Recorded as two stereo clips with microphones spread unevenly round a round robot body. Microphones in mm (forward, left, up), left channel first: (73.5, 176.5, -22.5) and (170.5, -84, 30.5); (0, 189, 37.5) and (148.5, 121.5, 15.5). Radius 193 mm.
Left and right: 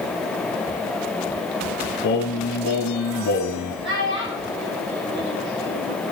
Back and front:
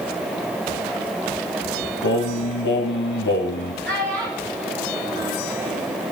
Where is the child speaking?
20° right, 5.5 m.